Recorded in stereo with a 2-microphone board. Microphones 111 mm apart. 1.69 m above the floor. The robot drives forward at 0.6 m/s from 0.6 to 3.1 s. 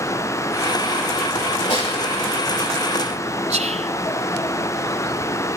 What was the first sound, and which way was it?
A snare drum, 80° left.